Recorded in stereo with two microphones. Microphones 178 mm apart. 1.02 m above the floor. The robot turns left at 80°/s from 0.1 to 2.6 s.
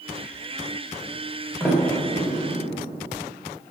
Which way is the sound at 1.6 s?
20° left (ahead or behind).